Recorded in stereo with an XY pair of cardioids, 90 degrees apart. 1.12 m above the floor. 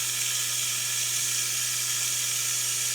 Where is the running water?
20° right, 2 m.